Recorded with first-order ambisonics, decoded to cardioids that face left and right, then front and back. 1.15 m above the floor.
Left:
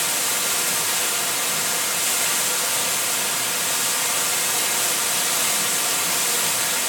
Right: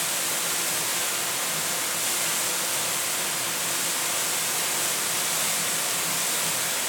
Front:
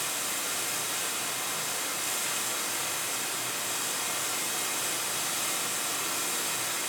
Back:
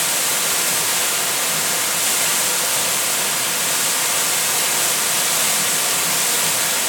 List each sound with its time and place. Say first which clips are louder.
0.0 s running water: left 4 dB, back 12 dB; 170° left, 0.7 m